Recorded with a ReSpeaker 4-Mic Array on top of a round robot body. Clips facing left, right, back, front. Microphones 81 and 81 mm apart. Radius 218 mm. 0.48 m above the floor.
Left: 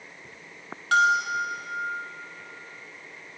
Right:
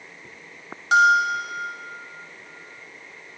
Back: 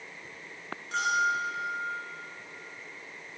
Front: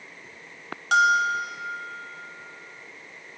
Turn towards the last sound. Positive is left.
turn(degrees=-20)